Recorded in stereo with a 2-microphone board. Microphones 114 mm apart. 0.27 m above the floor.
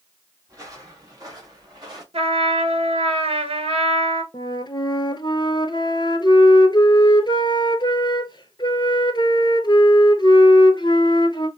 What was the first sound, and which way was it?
Footsteps, 30° right (ahead or behind).